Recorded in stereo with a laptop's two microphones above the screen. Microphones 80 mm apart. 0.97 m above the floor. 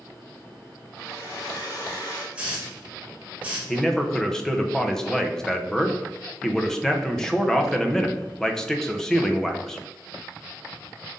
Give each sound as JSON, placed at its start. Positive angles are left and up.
{"t": 1.0, "sound": "a hair dryer", "side_deg": 50, "distance_m": 2.0}
{"t": 2.4, "sound": "a hiss", "side_deg": -15, "distance_m": 1.5}
{"t": 3.7, "sound": "a man speaking", "side_deg": 5, "distance_m": 0.6}